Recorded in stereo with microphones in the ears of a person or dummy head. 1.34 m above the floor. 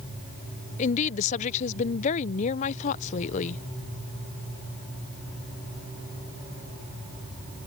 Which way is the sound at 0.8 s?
40° left (ahead or behind).